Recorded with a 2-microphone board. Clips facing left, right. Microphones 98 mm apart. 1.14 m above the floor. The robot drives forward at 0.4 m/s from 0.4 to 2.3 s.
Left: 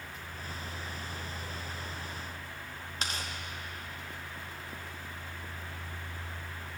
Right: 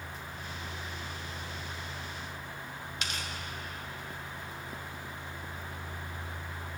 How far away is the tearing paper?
About 1.3 m.